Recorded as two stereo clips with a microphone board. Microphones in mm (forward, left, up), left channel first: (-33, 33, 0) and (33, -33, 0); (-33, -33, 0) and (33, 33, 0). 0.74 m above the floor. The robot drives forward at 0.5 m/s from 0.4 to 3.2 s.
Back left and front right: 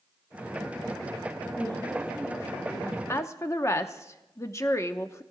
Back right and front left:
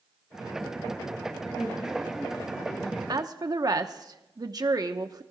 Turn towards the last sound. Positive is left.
turn(degrees=80)